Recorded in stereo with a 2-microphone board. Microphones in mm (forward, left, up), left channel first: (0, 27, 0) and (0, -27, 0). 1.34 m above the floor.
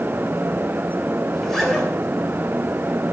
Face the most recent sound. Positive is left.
turn(degrees=0)  # may be behind; listen again after turning